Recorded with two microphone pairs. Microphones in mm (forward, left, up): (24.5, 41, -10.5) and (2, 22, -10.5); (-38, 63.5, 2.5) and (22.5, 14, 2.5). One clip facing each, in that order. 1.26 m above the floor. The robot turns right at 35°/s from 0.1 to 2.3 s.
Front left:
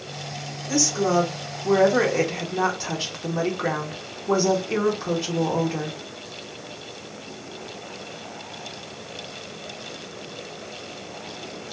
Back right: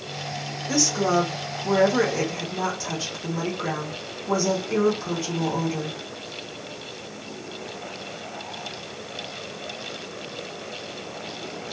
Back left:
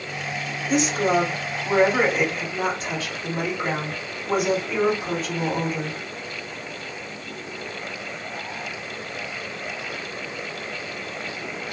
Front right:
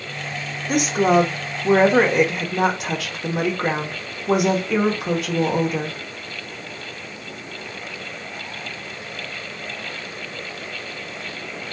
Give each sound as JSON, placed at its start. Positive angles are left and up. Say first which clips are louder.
{"t": 0.7, "sound": "a woman speaking", "louder": "even, front right 4 dB", "azimuth_deg": -75, "distance_m": 0.8}